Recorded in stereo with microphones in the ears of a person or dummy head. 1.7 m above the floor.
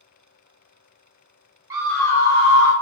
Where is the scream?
20° right (ahead or behind), 0.6 m; by 2.7 s 75° left (ahead or behind), 0.8 m.